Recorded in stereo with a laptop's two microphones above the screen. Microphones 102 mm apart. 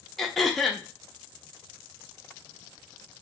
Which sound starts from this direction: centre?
Throat clearing, at 0.2 s.